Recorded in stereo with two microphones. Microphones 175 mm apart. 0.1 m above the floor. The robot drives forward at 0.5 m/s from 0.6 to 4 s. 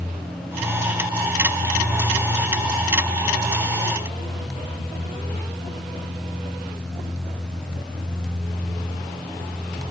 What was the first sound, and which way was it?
Only background noise.